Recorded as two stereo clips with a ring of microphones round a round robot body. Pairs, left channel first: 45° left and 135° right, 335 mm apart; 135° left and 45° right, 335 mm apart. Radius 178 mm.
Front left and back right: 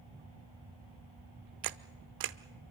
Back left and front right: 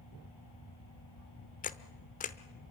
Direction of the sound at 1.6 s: 160° right.